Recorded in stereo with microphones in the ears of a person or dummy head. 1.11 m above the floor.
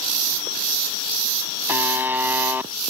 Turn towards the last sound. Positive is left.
turn(degrees=-10)  # may be behind; listen again after turning